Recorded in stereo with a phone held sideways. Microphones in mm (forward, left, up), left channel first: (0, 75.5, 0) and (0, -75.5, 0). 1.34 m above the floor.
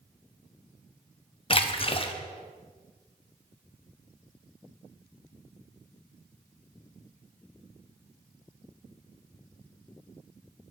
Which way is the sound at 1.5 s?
40° left (ahead or behind).